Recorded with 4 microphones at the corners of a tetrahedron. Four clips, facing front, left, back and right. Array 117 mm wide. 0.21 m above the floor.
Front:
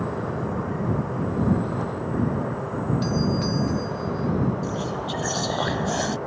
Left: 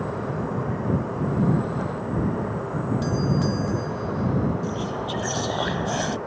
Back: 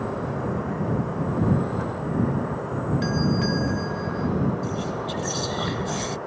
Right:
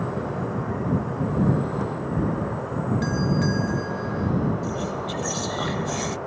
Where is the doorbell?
35° left.